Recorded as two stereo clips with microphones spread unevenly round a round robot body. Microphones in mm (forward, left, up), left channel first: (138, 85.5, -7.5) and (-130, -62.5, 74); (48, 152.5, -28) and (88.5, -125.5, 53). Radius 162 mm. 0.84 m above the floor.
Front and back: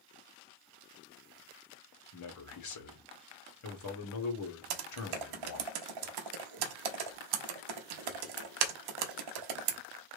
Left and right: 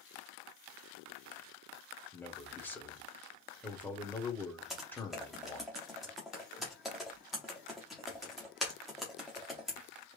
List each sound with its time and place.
2.1 s a man speaking: 20° left, 1.4 m
4.7 s typing on a keyboard: 175° right, 0.7 m